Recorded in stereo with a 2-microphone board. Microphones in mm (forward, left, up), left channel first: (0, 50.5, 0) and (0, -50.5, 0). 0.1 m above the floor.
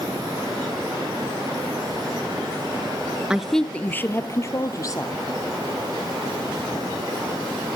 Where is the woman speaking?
10° right (ahead or behind), 1.2 m; by 5.2 s 35° left (ahead or behind), 3.5 m.